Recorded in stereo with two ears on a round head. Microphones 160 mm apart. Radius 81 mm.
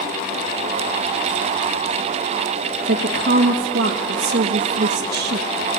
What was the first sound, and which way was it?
A woman speaking, 60° right (ahead or behind).